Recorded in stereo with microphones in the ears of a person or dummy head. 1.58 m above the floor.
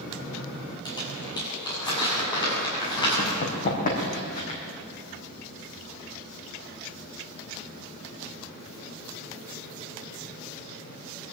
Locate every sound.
0.8 s crumpling: 20° left (ahead or behind), 7.5 m
3.2 s running footsteps: 45° left (ahead or behind), 4.5 m; by 4.6 s 35° left (ahead or behind), 5 m